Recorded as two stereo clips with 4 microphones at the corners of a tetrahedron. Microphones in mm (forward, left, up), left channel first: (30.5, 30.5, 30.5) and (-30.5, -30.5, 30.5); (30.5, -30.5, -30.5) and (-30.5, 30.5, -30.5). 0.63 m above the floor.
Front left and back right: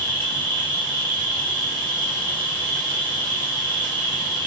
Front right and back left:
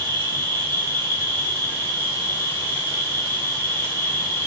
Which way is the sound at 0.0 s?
10° right.